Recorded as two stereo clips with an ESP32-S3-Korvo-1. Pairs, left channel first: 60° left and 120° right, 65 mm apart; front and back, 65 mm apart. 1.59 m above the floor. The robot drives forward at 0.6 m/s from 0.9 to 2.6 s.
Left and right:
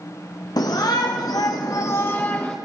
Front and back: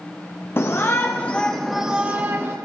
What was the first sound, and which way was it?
A shout, 50° left.